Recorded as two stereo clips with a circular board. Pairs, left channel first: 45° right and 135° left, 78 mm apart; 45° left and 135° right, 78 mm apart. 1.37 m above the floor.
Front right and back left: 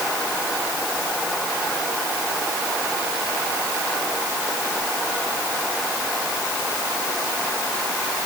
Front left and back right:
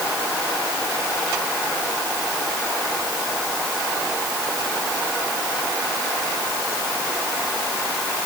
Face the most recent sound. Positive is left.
No sound to turn to.